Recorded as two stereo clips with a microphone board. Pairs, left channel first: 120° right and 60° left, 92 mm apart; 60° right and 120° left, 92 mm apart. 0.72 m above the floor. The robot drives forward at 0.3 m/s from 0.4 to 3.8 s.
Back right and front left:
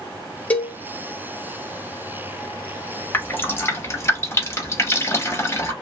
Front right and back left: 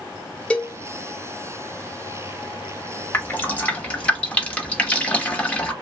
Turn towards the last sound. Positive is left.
turn(degrees=-115)